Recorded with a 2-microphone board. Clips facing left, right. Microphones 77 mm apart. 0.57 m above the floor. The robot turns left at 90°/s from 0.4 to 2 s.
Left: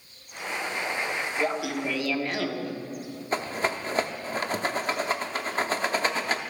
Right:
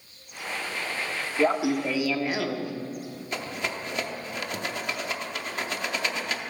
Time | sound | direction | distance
1.4 | laughter | 115° right | 0.7 m
3.3 | a rattle | 35° left (ahead or behind) | 0.6 m